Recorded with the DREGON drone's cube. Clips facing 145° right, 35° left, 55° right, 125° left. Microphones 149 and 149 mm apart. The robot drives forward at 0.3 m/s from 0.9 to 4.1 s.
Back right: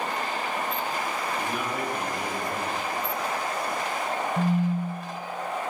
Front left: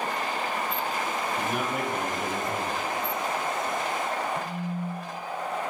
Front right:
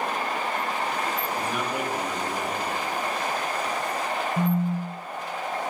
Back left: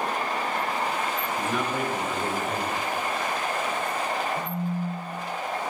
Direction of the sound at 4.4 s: 85° right.